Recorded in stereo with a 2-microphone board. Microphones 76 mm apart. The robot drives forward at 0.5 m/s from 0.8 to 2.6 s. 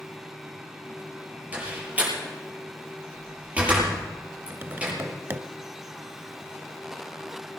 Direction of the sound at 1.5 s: 20° right (ahead or behind).